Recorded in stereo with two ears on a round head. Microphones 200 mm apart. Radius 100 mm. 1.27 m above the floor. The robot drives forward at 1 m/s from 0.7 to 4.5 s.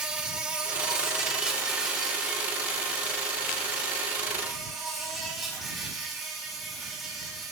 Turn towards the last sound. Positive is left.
turn(degrees=0)  # may be behind; listen again after turning